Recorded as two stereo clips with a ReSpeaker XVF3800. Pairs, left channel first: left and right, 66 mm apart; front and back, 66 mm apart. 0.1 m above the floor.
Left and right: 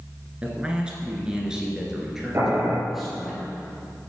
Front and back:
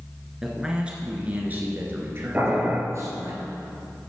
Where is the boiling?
125° right, 2 m.